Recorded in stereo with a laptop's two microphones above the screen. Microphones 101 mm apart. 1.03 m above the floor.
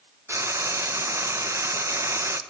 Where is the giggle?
I don't hear a giggle.